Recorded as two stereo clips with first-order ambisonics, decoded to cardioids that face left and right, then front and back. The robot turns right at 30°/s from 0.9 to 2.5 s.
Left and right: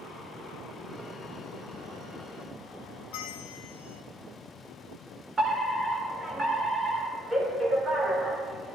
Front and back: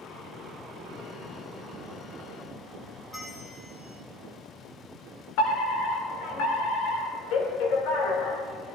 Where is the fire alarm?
10° right, 4 m.